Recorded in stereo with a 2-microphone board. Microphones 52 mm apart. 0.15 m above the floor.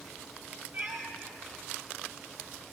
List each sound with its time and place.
0.7 s a cat meowing: 40° right (ahead or behind), 1.9 m